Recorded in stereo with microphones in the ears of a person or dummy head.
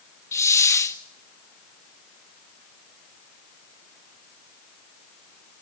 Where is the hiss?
15° left (ahead or behind), 0.8 m.